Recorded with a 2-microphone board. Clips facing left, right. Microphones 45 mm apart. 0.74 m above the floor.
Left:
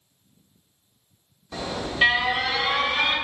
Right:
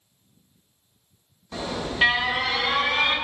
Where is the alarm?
5° right (ahead or behind), 1.5 m.